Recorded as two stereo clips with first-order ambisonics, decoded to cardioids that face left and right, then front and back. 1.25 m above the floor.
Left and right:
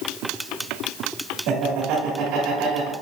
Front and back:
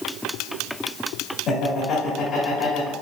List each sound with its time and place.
1.5 s laughter: 60° right, 2.5 m